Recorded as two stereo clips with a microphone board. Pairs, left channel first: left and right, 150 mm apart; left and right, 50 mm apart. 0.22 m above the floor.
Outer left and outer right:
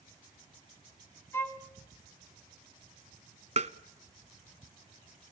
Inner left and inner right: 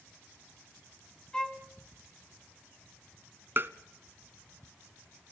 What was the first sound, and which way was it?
A violin, 15° left (ahead or behind).